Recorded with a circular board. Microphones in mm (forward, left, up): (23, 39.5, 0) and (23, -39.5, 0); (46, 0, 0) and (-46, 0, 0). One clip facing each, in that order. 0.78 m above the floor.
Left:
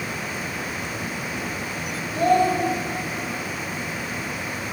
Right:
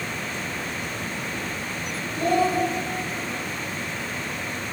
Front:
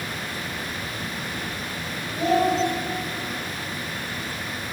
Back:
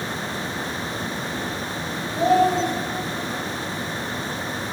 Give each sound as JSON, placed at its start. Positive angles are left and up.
{"t": 2.1, "sound": "a child speaking", "azimuth_deg": 120, "distance_m": 2.5}